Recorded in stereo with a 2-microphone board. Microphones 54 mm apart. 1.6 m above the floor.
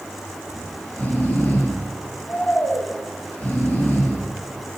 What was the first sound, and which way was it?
Snoring, 40° left (ahead or behind).